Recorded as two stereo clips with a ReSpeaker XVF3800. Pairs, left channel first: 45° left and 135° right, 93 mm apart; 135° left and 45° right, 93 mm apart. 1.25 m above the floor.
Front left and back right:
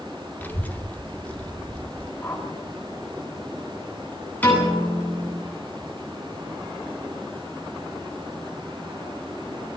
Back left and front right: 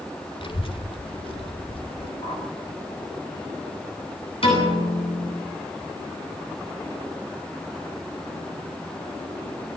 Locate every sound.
0.4 s a child speaking: 115° left, 1.6 m; by 2.1 s 125° left, 3.5 m
2.2 s a whoosh: 125° left, 5 m
4.4 s a piano: 120° left, 9.5 m